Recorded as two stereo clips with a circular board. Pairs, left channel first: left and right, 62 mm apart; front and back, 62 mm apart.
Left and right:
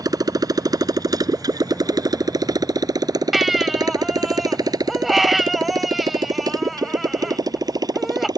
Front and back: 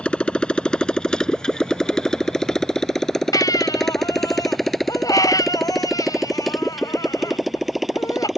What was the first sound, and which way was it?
A motorcycle, 75° right.